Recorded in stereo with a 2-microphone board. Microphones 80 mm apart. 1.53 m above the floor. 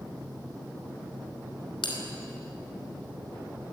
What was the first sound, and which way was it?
A bell, 80° left.